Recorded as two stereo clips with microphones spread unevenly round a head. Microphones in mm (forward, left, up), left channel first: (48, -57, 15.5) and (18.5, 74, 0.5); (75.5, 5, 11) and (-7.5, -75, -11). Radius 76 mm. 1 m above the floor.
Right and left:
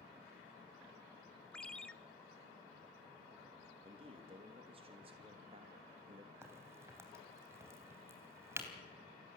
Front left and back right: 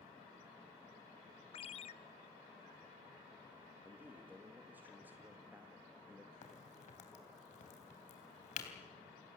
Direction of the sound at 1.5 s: 10° left.